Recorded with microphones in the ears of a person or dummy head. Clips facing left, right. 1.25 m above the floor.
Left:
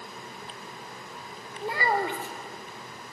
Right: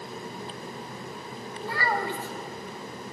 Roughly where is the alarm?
No alarm in this recording.